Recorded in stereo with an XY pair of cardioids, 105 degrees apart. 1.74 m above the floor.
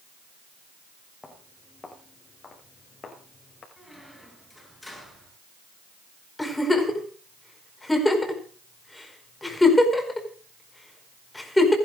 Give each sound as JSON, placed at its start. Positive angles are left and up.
{"t": 1.2, "sound": "footsteps", "azimuth_deg": 20, "distance_m": 6.0}
{"t": 3.8, "sound": "a squeak", "azimuth_deg": 10, "distance_m": 8.5}
{"t": 6.4, "sound": "a giggle", "azimuth_deg": 10, "distance_m": 4.5}